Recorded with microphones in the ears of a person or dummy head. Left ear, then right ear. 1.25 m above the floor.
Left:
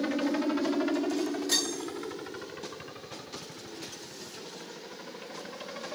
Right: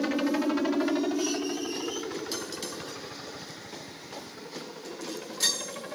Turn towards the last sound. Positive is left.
turn(degrees=0)  # may be behind; listen again after turning